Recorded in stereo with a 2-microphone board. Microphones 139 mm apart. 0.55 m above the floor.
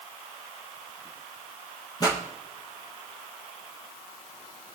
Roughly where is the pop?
Left.